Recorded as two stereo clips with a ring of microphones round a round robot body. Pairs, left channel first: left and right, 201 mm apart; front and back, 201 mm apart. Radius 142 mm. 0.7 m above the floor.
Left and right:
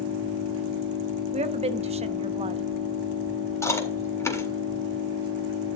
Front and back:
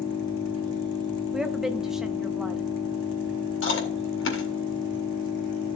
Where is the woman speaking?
95° right, 0.6 m.